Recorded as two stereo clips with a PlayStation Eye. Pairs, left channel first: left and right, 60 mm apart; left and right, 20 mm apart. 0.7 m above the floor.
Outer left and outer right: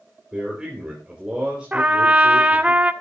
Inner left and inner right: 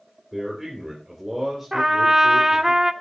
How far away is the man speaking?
About 3 m.